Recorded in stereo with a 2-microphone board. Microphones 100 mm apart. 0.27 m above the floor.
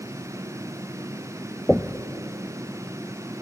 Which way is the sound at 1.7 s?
5° left (ahead or behind).